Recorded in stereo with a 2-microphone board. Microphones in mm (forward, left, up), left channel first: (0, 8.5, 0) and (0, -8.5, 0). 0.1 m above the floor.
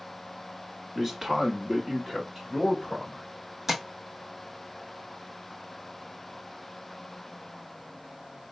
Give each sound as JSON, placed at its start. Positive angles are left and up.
{"t": 0.9, "sound": "a man speaking", "side_deg": -20, "distance_m": 1.1}
{"t": 3.7, "sound": "tapping", "side_deg": -15, "distance_m": 0.9}